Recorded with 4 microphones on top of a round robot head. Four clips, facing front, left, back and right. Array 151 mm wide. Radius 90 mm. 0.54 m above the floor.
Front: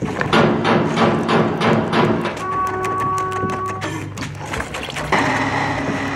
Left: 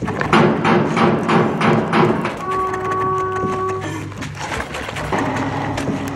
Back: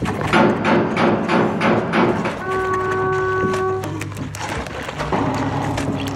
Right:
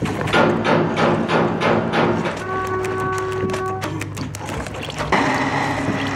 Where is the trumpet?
25° left, 2.5 m.